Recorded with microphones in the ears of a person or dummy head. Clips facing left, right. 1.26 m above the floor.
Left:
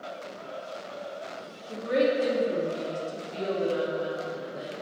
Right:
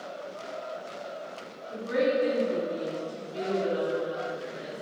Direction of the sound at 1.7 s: 80° left.